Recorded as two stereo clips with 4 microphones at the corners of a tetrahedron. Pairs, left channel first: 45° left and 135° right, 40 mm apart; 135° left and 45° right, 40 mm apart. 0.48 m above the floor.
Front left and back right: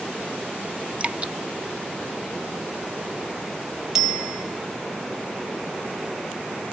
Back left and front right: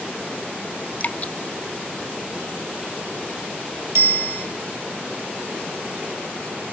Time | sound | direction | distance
1.0 | dripping | 175° left | 0.6 m
4.0 | a bicycle bell | 55° right | 3.5 m